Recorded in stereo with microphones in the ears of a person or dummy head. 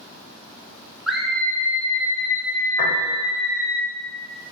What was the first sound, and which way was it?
A scream, centre (ahead or behind).